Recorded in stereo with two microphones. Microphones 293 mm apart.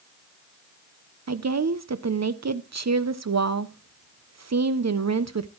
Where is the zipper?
I don't hear a zipper.